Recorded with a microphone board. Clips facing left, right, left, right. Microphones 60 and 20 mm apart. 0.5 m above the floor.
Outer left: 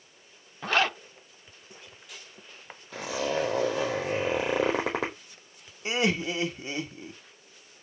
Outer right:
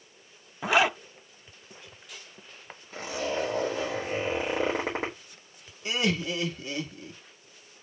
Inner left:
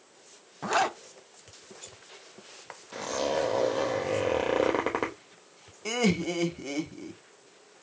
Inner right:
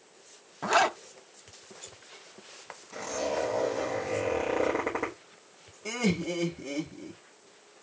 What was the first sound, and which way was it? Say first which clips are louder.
A zipper: outer right 2 dB, inner right 2 dB; 10° right (ahead or behind).